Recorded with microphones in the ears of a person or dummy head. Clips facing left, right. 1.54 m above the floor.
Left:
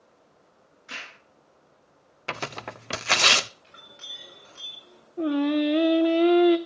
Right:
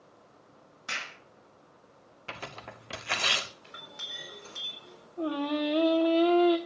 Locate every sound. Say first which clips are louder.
0.9 s a clap: right 1 dB; 85° right, 6.5 m
2.3 s tearing paper: left 8 dB; 55° left (ahead or behind), 0.5 m
3.6 s a clink: right 3 dB; 65° right (ahead or behind), 4 m
5.2 s singing: left 7 dB; 20° left (ahead or behind), 0.8 m